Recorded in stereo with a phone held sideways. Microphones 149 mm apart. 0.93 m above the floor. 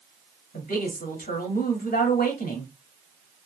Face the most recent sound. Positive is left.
turn(degrees=75)  # may be behind; listen again after turning